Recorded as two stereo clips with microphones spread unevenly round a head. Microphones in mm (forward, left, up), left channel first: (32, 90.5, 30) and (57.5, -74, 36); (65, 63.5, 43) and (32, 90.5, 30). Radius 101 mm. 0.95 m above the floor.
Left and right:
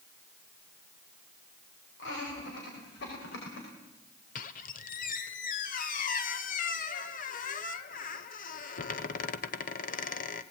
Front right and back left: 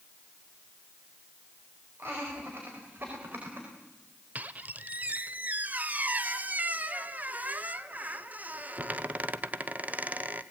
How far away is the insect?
I don't hear an insect.